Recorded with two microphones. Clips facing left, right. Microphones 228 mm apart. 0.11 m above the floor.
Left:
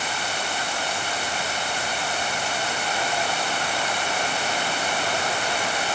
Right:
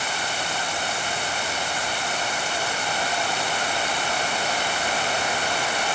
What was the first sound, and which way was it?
Only background noise.